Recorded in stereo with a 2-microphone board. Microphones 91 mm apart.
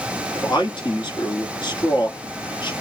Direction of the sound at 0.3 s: 55° left (ahead or behind).